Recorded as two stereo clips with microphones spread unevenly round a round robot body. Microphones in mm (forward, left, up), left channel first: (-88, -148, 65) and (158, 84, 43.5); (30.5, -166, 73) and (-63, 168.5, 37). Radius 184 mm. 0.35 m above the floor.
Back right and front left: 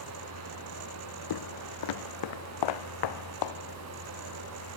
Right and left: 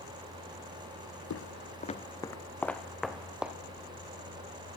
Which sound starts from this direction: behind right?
Footsteps, at 1.3 s.